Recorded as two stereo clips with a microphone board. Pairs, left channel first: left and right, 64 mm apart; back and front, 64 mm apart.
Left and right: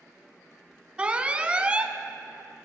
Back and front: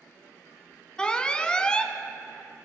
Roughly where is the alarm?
Behind right.